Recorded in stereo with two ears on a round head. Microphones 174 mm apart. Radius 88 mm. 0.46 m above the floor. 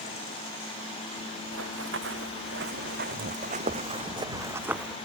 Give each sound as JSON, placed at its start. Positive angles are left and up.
{"t": 1.5, "sound": "running footsteps", "side_deg": -70}